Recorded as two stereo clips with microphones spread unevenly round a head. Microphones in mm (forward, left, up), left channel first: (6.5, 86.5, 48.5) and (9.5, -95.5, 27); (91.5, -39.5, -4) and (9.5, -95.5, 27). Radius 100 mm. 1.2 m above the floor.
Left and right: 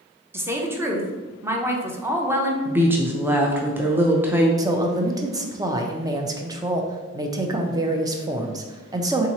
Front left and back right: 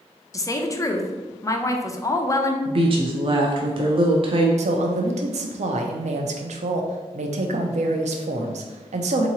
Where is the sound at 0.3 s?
15° right, 0.7 m.